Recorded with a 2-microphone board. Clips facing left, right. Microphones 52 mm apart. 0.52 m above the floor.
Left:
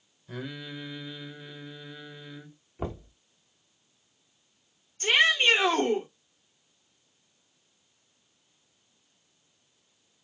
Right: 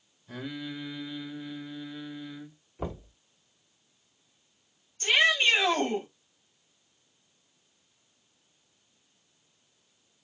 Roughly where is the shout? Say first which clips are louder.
Left 1 dB; left.